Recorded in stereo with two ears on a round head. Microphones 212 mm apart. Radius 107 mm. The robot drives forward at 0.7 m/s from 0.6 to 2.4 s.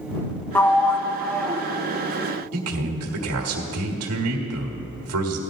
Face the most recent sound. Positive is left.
turn(degrees=-75)  # may be behind; listen again after turning